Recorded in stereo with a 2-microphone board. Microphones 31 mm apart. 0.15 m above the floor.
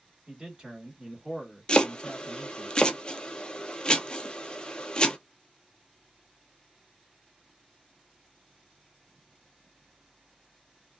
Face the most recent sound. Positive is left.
turn(degrees=30)  # may be behind; listen again after turning